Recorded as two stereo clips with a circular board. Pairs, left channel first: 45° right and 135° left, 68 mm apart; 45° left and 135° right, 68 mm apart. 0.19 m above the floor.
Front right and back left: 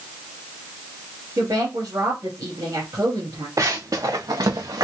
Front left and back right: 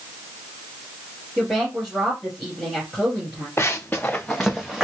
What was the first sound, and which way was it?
A woman speaking, 130° left.